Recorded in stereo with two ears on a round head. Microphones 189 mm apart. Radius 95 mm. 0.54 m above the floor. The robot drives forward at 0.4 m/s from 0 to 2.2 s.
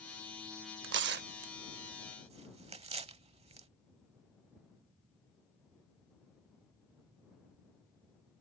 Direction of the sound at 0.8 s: 60° right (ahead or behind).